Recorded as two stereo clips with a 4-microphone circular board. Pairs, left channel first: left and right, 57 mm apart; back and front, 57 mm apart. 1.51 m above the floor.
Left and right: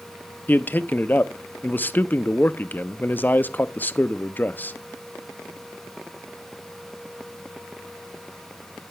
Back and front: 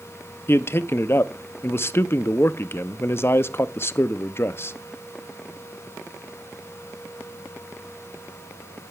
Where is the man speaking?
145° left, 0.5 m.